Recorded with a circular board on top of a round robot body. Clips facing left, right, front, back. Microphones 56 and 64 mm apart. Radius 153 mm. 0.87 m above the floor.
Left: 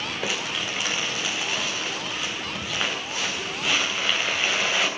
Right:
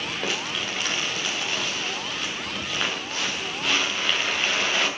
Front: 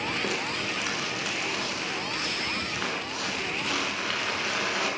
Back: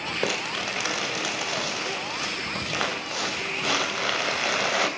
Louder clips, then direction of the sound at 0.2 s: Left 1 dB, back 2 dB; 175° left.